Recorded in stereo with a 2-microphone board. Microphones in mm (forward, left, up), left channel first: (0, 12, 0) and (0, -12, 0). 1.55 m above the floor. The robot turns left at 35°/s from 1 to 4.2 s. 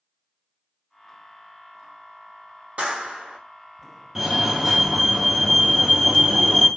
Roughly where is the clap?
Right.